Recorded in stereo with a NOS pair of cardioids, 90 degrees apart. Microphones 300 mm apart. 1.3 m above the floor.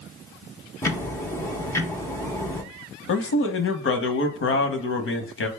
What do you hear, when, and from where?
0.8 s ticking: 10° left, 0.7 m
3.1 s a man speaking: 45° left, 0.9 m